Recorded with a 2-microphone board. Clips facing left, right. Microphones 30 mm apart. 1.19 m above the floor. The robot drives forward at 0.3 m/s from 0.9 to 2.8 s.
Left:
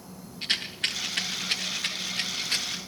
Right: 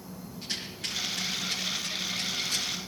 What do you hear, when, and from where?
0.4 s a rattle: 50° left (ahead or behind), 0.6 m; by 2.8 s 40° left (ahead or behind), 0.8 m